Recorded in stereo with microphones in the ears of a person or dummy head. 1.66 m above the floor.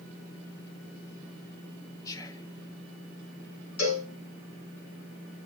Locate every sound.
2.0 s whispering: 15° left (ahead or behind), 0.8 m
3.8 s a cowbell: 75° left (ahead or behind), 5.5 m